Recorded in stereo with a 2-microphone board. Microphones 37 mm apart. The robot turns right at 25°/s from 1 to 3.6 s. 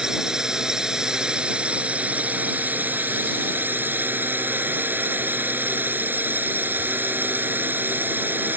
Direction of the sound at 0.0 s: 160° right.